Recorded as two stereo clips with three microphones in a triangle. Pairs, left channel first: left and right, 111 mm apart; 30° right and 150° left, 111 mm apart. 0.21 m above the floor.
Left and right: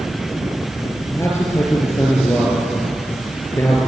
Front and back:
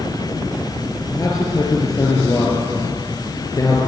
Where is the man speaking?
25° left, 4 m.